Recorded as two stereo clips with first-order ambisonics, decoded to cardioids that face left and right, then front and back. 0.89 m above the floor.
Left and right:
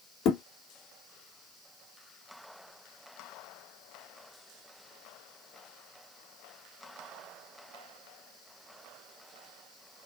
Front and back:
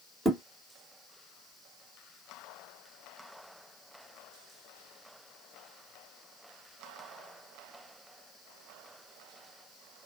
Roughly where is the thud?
Left.